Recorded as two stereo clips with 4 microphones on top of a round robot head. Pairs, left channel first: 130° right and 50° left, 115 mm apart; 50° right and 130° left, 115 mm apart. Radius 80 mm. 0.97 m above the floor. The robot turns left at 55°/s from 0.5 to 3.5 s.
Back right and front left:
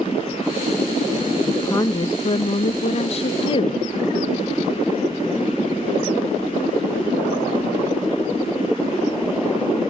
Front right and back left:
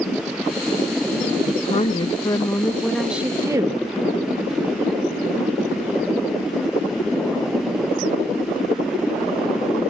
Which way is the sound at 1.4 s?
55° right.